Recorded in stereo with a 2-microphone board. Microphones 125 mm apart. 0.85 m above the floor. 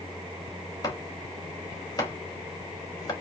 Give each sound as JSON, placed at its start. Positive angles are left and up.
{"t": 0.8, "sound": "chopping", "side_deg": 35, "distance_m": 3.0}